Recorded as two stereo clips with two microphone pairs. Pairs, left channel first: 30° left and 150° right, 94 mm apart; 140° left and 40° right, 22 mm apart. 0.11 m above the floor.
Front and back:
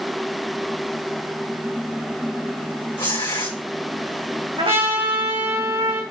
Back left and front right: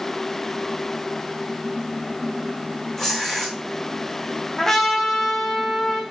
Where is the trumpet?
150° right, 4 m.